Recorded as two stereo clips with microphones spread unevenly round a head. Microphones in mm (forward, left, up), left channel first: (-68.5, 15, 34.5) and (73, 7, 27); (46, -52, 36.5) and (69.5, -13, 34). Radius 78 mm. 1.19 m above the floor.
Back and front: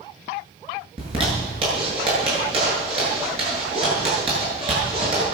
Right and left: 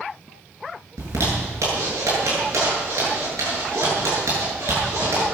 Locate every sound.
1.0 s a zipper: 50° left, 8 m